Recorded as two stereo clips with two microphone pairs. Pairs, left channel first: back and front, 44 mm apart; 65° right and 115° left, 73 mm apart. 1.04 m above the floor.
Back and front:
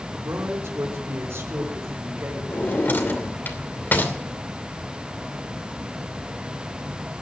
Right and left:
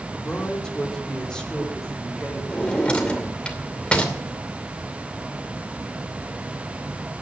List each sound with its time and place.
0.1 s a man speaking: 10° left, 3 m; by 2.4 s 20° left, 4 m
2.5 s a drawer: 140° right, 2.5 m